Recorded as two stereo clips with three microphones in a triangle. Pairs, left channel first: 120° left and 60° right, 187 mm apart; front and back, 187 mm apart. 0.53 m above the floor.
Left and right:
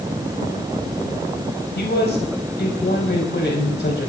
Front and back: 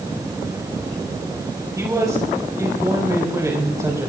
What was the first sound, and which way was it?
A man speaking, 110° left.